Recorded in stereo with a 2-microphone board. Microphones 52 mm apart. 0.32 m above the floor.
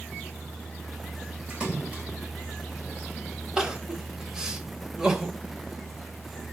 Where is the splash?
20° right (ahead or behind), 1.6 m.